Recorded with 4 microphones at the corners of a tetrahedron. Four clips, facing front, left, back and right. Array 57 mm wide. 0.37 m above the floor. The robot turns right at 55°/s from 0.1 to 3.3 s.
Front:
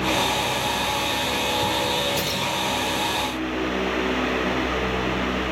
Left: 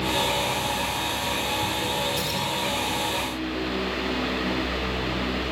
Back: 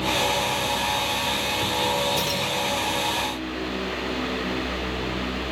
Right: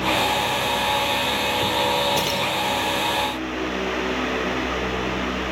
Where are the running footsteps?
No running footsteps in this recording.